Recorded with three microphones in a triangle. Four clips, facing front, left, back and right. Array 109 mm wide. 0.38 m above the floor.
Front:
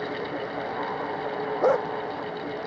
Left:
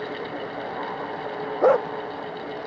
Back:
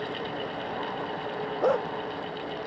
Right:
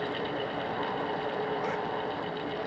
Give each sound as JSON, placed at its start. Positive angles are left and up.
{"t": 1.6, "sound": "a dog barking", "azimuth_deg": 75}